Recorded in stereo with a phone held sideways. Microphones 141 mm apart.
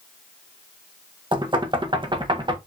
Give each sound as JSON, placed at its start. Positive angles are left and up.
{"t": 1.3, "sound": "knocking", "side_deg": -35, "distance_m": 0.7}